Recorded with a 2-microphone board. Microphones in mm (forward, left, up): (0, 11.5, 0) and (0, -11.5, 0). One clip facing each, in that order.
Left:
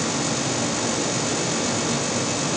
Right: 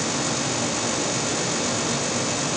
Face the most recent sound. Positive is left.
No sound to turn to.